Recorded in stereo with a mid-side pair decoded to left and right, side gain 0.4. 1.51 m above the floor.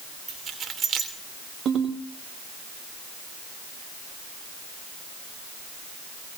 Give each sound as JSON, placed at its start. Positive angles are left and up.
{"t": 0.3, "sound": "keys jangling", "azimuth_deg": -50, "distance_m": 3.5}
{"t": 1.6, "sound": "a ringtone", "azimuth_deg": -65, "distance_m": 4.0}